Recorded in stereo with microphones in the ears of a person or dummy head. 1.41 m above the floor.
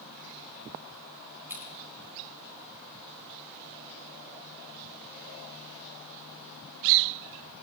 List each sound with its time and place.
1.5 s scissors: 10° right (ahead or behind), 4 m